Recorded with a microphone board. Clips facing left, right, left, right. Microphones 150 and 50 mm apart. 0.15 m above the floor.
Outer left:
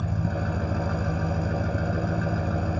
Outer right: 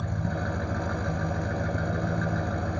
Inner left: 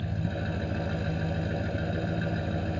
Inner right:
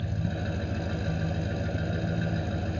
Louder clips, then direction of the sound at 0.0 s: Outer left 2 dB, even; 5° left (ahead or behind).